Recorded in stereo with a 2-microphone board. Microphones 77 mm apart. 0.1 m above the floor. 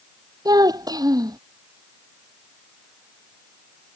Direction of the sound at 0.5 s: 60° right (ahead or behind).